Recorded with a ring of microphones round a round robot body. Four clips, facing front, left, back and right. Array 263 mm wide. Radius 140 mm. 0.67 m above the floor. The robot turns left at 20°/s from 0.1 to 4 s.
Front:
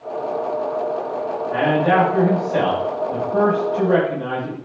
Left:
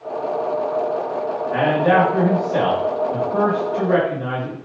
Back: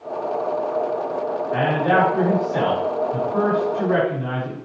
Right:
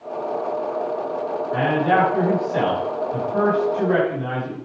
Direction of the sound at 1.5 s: 80° left.